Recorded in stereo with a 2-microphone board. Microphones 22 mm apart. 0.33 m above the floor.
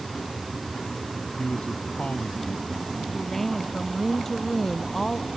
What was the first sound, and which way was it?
A man speaking, 65° left (ahead or behind).